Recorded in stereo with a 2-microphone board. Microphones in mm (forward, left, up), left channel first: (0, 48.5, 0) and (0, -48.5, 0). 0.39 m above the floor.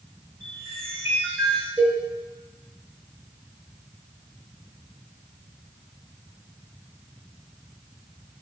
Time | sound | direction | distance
0.4 | a chime | 25° right (ahead or behind) | 4 m
1.8 | a cowbell | 20° right (ahead or behind) | 5 m